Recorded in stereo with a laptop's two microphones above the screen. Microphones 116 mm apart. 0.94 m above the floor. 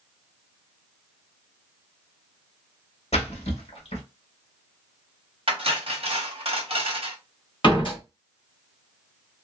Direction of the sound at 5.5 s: 55° right (ahead or behind).